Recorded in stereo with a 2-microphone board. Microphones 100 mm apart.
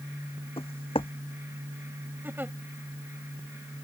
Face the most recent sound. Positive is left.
turn(degrees=-20)  # may be behind; listen again after turning